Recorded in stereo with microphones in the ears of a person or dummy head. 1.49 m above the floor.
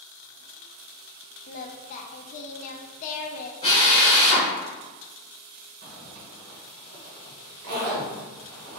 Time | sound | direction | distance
1.5 | singing | 45° left (ahead or behind) | 0.6 m
3.6 | a drill | 25° left (ahead or behind) | 0.8 m
5.8 | a zipper | 55° right (ahead or behind) | 0.9 m